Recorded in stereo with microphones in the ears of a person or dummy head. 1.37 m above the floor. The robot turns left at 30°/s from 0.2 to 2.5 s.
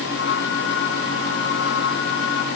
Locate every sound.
Only background noise.